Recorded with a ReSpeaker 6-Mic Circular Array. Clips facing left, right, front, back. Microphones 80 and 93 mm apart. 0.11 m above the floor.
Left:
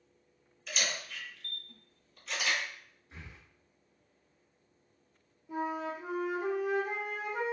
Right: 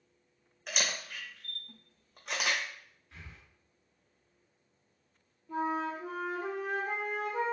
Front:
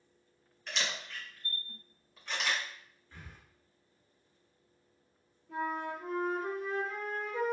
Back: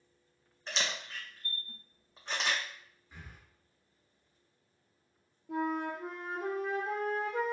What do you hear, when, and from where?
0.7 s a camera shutter: 120° right, 1.0 m
3.1 s breathing: 120° left, 1.1 m
5.5 s a flute: 170° left, 1.3 m